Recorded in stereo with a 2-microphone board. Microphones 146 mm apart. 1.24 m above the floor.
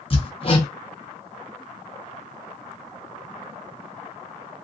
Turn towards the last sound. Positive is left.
turn(degrees=40)  # may be behind; listen again after turning